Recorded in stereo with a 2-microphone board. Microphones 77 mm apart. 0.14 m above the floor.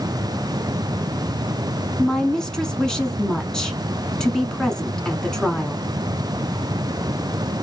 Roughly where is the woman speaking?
Centre.